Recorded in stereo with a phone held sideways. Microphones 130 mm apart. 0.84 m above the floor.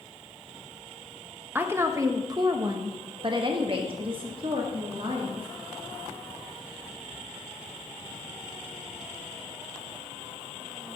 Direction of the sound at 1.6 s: 15° right (ahead or behind).